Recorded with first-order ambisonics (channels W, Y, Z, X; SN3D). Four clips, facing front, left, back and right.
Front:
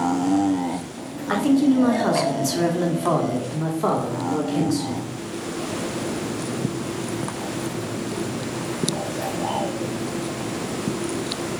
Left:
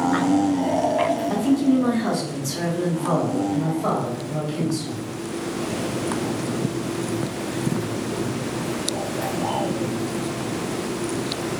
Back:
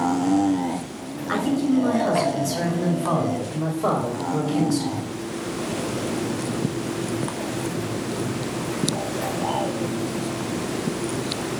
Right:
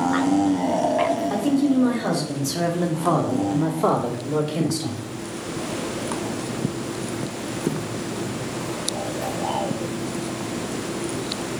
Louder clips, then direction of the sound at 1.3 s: Left 2 dB, front 3 dB; 10° left.